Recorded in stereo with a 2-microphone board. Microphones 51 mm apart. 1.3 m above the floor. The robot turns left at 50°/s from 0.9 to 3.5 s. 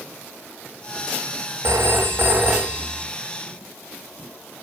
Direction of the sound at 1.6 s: 105° right.